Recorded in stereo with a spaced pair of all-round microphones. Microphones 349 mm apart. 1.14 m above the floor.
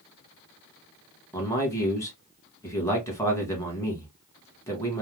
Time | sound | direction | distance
1.3 | a man speaking | 10° left (ahead or behind) | 1.4 m